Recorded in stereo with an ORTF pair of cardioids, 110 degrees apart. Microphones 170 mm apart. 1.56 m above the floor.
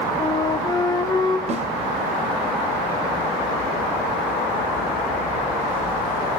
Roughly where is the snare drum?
Ahead right.